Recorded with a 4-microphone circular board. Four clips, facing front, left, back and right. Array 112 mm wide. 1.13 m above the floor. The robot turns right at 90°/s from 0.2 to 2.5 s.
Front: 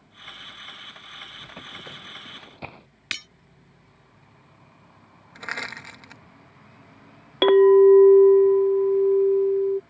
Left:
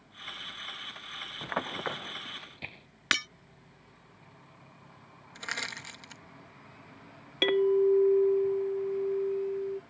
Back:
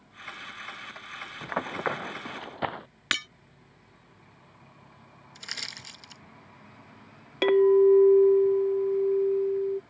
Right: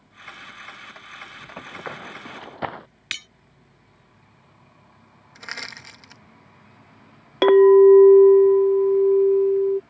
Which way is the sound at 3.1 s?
125° left.